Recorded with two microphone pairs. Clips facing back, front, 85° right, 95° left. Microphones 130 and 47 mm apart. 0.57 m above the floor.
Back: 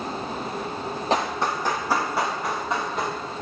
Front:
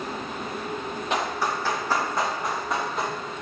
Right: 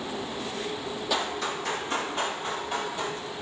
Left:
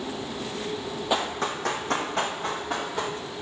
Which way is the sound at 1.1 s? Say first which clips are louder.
Back 2 dB, left 3 dB; 145° left.